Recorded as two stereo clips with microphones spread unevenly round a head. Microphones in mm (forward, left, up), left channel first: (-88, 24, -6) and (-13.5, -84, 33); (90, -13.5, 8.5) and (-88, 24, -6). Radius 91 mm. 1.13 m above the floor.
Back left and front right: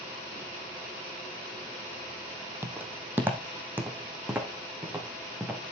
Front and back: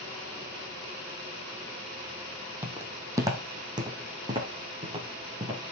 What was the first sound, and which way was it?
Footsteps, 110° right.